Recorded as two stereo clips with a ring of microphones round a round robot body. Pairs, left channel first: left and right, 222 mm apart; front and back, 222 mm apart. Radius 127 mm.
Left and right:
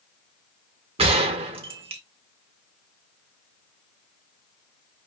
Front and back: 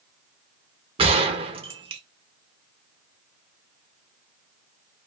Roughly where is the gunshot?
Behind right.